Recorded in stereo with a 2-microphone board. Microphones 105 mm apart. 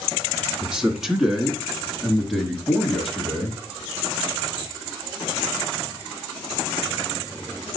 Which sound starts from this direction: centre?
A man speaking, at 0.6 s.